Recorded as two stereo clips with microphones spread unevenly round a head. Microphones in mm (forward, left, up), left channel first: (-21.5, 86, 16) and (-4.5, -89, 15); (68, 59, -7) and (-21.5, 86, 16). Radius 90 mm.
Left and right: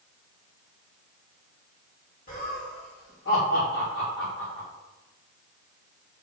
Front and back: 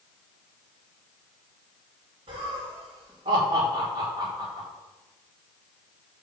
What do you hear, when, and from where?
2.3 s laughter: 140° left, 2.5 m; by 4.7 s 115° left, 3.5 m